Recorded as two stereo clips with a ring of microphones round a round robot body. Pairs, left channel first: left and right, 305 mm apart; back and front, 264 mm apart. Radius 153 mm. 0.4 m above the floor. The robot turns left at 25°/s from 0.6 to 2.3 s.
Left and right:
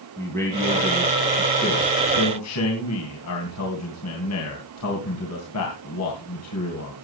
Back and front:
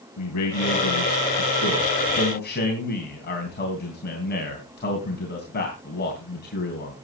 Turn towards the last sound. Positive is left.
turn(degrees=130)